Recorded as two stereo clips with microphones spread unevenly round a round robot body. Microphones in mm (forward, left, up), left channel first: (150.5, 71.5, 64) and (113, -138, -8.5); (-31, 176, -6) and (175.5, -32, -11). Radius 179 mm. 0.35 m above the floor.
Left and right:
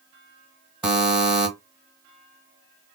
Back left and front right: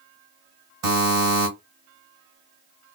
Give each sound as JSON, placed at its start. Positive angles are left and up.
{"t": 0.8, "sound": "a buzzer", "azimuth_deg": -20, "distance_m": 1.5}